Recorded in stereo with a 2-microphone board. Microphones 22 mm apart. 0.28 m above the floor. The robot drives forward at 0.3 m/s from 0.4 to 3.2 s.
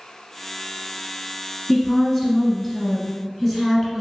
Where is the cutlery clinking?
No cutlery clinking in this recording.